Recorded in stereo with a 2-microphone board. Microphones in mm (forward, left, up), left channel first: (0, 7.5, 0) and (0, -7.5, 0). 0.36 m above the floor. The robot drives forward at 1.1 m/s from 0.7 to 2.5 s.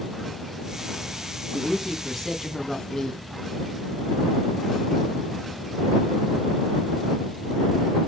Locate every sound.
1.5 s a woman speaking: 20° left (ahead or behind), 3 m; by 3.3 s 30° left (ahead or behind), 2 m